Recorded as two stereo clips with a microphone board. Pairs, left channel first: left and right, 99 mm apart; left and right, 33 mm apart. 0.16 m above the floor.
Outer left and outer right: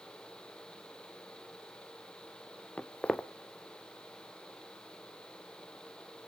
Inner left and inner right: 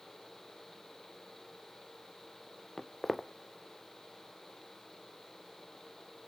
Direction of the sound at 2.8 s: 10° left (ahead or behind).